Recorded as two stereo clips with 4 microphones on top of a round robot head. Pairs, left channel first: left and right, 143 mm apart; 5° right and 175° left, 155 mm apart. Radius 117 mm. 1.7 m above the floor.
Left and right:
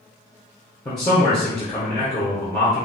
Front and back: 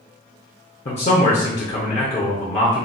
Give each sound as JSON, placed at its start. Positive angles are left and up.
{"t": 0.8, "sound": "a man speaking", "azimuth_deg": 20, "distance_m": 0.5}